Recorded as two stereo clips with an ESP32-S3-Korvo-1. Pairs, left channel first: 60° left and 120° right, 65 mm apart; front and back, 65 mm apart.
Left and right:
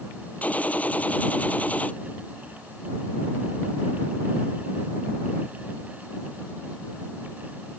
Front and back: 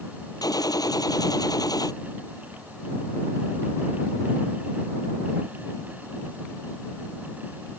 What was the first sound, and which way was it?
A gunshot, 5° right.